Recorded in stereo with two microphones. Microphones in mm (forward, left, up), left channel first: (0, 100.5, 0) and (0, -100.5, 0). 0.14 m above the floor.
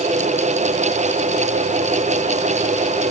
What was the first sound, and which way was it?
Only background noise.